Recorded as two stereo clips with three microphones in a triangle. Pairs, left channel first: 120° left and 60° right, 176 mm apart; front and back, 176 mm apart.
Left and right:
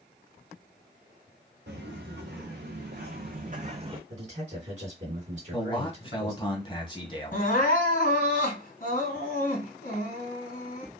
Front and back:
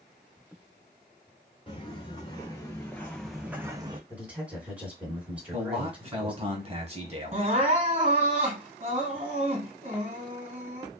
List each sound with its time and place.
1.7 s footsteps: 60° right, 1.8 m; by 4.0 s 120° right, 0.8 m
4.1 s a man speaking: 100° right, 2 m
5.5 s a man speaking: 160° left, 1.2 m
7.3 s crying: 140° left, 2.5 m